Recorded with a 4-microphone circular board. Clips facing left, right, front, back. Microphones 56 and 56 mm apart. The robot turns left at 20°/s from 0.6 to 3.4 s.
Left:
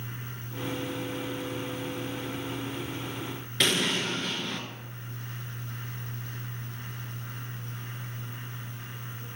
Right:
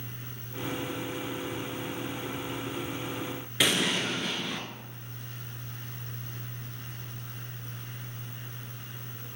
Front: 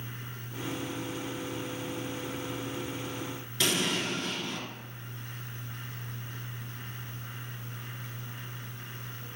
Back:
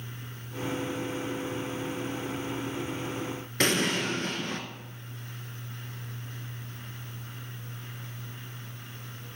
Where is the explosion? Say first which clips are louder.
Even, back 3 dB; 175° right, 0.5 m.